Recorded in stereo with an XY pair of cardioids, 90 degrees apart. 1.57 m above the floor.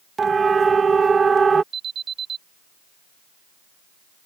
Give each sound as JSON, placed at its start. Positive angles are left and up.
{"t": 0.2, "sound": "a siren", "azimuth_deg": -40}
{"t": 1.7, "sound": "an alarm", "azimuth_deg": -60}